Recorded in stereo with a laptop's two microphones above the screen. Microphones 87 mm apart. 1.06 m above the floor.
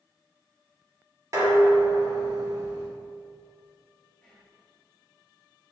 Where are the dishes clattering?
40° right (ahead or behind), 1.5 m.